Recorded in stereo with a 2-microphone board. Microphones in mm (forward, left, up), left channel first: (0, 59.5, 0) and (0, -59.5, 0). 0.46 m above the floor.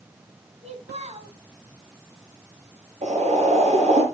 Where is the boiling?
80° right, 6 m.